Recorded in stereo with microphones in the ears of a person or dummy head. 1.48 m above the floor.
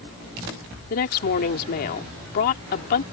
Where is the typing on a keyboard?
I don't hear typing on a keyboard.